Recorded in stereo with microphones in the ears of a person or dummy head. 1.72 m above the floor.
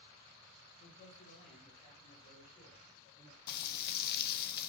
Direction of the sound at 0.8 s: 35° left (ahead or behind).